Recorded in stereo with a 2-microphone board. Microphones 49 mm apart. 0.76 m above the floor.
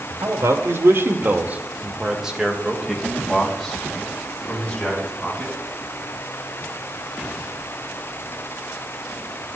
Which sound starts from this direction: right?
A man speaking, at 0.2 s.